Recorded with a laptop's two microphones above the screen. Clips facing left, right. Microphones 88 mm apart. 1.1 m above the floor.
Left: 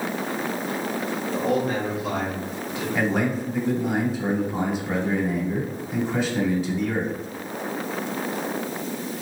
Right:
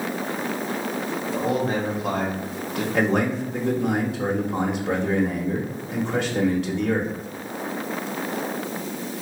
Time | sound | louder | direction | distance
1.3 | a man speaking | even | 20° right (ahead or behind) | 1.0 m
2.9 | a man speaking | right 2 dB | 70° right (ahead or behind) | 1.2 m